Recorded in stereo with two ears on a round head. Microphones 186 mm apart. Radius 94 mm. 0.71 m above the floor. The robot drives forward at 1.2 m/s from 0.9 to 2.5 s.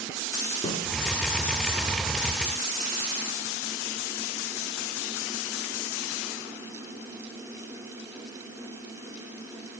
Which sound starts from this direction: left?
A snare drum, at 0.6 s.